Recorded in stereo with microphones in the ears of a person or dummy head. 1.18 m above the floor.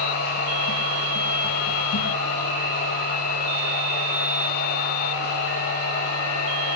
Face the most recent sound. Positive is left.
turn(degrees=60)  # may be behind; listen again after turning